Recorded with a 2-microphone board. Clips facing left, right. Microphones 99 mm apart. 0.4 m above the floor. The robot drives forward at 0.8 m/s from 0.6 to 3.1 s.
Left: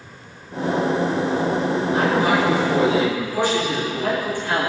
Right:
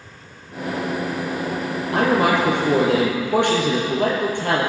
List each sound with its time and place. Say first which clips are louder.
1.9 s a man speaking: right 3 dB; 70° right (ahead or behind), 10 m; by 4.7 s 65° right (ahead or behind), 10 m